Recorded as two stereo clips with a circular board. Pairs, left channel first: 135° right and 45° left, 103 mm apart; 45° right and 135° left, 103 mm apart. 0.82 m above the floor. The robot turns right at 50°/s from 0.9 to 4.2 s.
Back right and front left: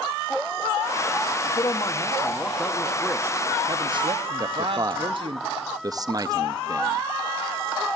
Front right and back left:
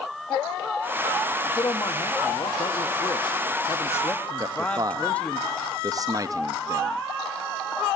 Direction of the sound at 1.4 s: 110° right.